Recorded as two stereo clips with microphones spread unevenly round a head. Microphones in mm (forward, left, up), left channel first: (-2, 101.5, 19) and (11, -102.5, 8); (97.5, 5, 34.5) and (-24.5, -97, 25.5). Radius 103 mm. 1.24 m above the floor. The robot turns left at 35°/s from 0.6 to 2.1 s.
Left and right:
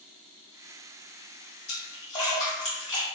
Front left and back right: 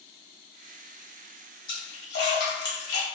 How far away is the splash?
About 1.2 m.